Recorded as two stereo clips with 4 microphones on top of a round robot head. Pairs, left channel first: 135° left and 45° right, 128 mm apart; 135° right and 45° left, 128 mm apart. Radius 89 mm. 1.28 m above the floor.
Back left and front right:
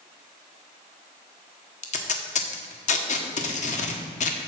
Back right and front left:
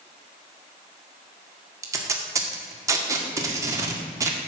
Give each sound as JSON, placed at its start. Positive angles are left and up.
{"t": 1.8, "sound": "tape being pulled", "azimuth_deg": 110, "distance_m": 1.3}